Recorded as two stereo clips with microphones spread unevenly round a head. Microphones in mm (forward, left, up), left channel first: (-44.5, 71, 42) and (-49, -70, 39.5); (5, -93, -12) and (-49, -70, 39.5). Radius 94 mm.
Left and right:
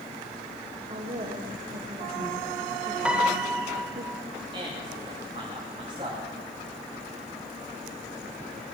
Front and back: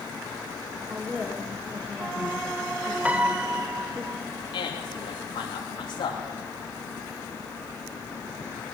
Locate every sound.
0.9 s a woman speaking: 145° right, 1.4 m
3.0 s a piano: 175° right, 0.6 m
4.5 s a man speaking: 25° right, 2.5 m